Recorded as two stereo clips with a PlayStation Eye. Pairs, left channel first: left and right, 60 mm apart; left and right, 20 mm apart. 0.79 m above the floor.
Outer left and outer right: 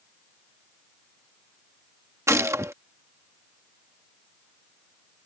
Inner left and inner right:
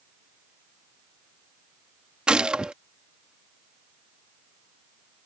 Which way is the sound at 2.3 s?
50° right (ahead or behind).